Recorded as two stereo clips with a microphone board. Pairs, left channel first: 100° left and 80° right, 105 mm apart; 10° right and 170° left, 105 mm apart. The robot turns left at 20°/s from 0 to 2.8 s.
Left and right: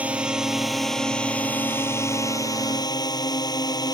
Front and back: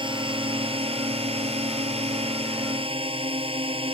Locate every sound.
0.0 s a drone: 155° right; by 4.0 s 150° left